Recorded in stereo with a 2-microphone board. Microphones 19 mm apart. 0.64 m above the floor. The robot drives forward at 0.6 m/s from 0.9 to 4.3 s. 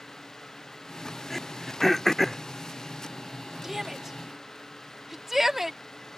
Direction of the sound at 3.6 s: 15° right (ahead or behind).